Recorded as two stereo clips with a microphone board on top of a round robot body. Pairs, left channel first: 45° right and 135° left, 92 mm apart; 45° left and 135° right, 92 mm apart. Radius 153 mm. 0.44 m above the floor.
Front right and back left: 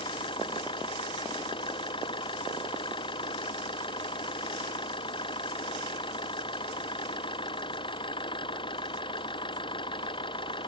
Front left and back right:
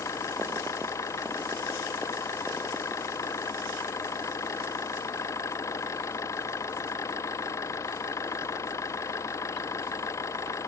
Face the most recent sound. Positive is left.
turn(degrees=-15)